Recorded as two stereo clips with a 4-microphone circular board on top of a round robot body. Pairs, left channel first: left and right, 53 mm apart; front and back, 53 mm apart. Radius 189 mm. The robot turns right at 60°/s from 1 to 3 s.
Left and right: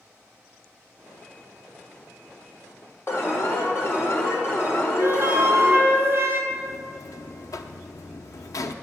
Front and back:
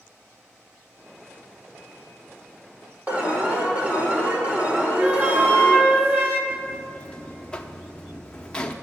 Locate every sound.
3.1 s an alarm: 125° left, 3 m
5.0 s a flute: 130° right, 2.5 m
6.5 s a buzzer: 75° left, 0.7 m